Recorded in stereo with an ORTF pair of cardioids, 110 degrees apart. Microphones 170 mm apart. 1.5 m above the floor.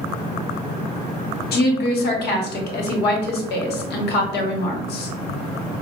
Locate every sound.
1.5 s a woman speaking: 65° left, 1.0 m